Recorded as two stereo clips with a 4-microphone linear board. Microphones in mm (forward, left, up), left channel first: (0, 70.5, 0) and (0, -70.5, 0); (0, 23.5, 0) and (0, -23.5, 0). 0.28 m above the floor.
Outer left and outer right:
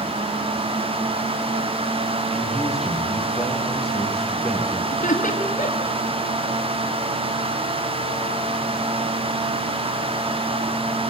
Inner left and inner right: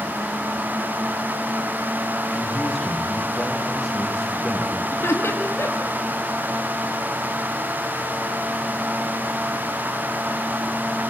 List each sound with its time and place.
2.3 s a man speaking: centre (ahead or behind), 7.5 m
4.9 s laughter: 60° left (ahead or behind), 4.5 m